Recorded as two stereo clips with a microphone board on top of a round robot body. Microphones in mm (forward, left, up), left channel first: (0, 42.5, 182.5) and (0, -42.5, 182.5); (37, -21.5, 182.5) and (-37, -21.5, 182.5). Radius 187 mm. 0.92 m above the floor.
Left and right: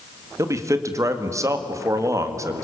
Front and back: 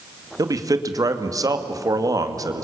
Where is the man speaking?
145° right, 2 m.